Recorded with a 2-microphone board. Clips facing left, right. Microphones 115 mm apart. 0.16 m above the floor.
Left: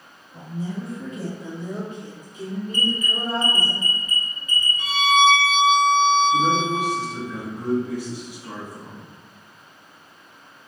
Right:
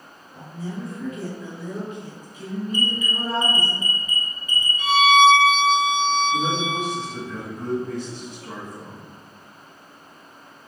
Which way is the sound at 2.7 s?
20° right (ahead or behind).